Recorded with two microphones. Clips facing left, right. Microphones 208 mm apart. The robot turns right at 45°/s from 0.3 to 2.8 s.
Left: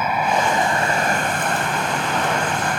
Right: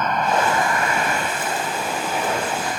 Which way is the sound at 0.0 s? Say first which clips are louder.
Even; 10° left.